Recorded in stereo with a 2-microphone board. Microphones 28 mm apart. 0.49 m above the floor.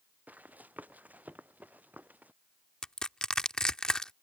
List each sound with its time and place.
0.3 s running footsteps: 85° right; by 2.3 s 80° right
2.8 s crushing: 30° left (ahead or behind)